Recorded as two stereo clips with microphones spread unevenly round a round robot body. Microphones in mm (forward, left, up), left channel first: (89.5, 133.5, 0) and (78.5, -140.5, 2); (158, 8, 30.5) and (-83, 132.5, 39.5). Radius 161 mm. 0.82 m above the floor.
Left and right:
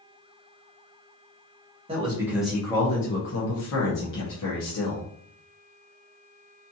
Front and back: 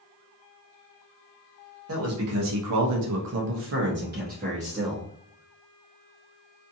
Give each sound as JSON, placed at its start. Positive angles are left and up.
{"t": 1.9, "sound": "a man speaking", "azimuth_deg": -165, "distance_m": 1.0}